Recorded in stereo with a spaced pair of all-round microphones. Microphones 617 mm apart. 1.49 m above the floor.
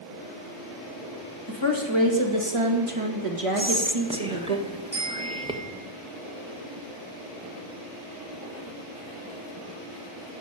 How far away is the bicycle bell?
About 7 m.